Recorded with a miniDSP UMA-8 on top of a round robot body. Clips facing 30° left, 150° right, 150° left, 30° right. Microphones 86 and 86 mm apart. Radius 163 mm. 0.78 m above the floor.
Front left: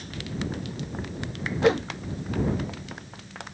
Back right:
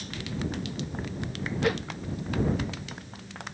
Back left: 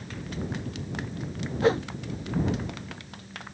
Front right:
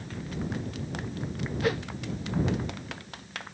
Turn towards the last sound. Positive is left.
turn(degrees=90)